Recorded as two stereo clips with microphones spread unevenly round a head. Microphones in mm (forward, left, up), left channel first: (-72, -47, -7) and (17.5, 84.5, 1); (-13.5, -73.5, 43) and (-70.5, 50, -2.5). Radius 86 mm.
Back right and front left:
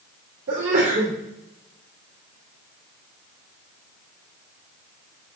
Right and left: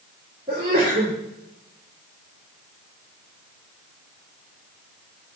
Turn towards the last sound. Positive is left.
turn(degrees=60)